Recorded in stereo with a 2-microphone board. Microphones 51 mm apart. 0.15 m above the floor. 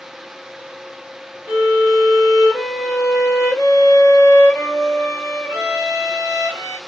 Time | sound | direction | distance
1.5 | a violin | 55° left (ahead or behind) | 6 m